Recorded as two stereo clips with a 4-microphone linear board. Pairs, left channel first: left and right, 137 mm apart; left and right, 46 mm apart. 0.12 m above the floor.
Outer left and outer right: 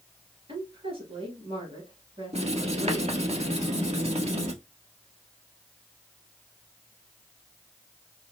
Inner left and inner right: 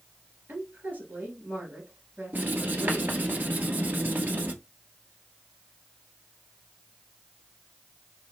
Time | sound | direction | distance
0.5 | a woman speaking | 45° right (ahead or behind) | 2.5 m
2.3 | writing | 55° right (ahead or behind) | 1.1 m